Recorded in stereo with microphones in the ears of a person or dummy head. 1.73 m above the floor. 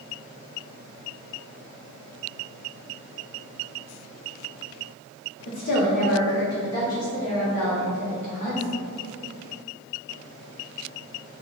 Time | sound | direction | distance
5.5 | a woman speaking | 40° left (ahead or behind) | 1.1 m